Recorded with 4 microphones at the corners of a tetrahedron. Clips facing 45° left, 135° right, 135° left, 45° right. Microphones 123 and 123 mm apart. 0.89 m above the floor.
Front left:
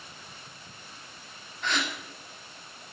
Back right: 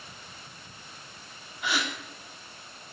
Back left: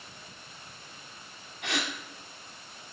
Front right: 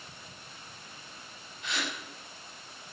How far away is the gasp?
About 2.5 m.